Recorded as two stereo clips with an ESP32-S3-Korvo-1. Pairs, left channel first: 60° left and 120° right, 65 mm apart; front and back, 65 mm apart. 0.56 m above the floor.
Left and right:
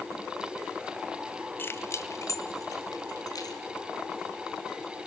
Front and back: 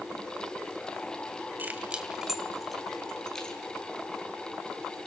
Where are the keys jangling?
115° left, 2 m; by 3.6 s 80° left, 4.5 m.